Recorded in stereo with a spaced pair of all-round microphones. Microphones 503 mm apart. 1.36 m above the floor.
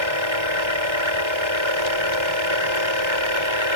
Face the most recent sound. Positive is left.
turn(degrees=-65)  # may be behind; listen again after turning